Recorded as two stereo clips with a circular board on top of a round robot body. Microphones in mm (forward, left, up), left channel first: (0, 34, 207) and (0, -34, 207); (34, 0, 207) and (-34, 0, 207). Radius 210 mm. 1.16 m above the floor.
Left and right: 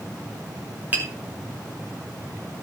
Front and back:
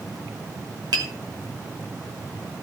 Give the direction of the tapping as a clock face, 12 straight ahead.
5 o'clock.